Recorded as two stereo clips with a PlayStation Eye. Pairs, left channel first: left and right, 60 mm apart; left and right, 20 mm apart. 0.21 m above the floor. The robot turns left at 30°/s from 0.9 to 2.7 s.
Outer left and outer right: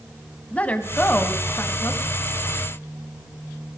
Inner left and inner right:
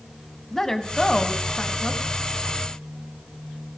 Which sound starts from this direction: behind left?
A woman speaking, at 0.5 s.